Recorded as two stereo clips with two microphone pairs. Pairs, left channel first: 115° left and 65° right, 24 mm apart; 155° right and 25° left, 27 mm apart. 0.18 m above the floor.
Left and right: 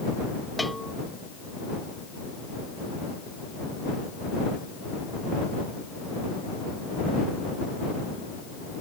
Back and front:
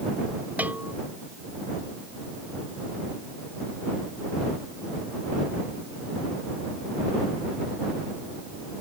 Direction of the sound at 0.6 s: 25° left.